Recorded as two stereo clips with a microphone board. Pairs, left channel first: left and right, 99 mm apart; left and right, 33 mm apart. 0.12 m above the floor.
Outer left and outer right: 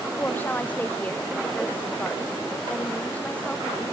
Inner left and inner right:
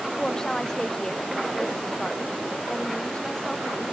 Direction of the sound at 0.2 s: 20° left (ahead or behind).